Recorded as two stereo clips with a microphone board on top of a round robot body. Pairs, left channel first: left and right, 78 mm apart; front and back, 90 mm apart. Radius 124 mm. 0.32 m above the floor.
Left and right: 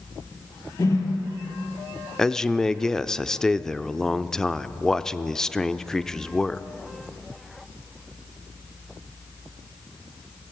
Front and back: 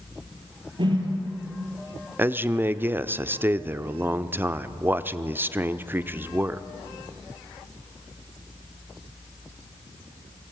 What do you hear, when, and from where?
0.8 s a whoosh: 145° left, 4 m
2.2 s a man speaking: 165° left, 0.9 m